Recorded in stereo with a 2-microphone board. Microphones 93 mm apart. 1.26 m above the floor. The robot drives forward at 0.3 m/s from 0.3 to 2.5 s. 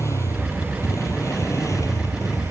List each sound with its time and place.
0.0 s a motorcycle: 30° left (ahead or behind); by 2.5 s 35° left (ahead or behind)